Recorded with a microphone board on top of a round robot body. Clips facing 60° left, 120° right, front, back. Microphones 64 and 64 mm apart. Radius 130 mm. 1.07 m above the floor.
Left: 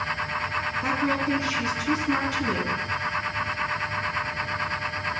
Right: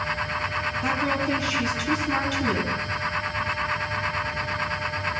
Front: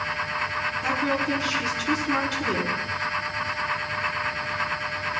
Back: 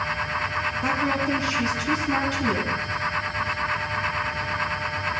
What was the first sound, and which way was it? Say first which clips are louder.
A woman speaking: even, back 1 dB; 120° left.